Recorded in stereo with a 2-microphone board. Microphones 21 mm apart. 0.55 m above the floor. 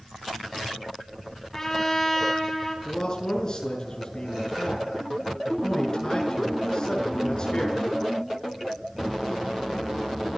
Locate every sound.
1.5 s a trumpet: 20° left (ahead or behind), 4 m
2.9 s a man speaking: 35° left (ahead or behind), 7 m